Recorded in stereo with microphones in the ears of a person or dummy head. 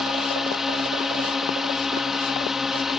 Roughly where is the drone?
Centre.